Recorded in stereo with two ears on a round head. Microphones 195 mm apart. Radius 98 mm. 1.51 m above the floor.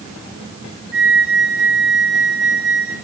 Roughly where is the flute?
Right.